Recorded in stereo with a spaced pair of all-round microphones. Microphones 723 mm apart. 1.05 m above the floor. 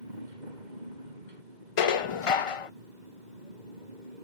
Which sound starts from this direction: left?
Dishes clattering, at 1.8 s.